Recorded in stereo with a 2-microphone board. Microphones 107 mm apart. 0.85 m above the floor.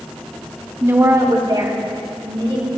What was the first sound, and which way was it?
A woman speaking, 25° right (ahead or behind).